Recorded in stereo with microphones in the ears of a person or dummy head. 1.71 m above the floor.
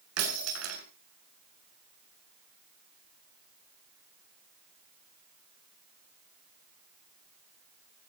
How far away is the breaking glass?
About 7 m.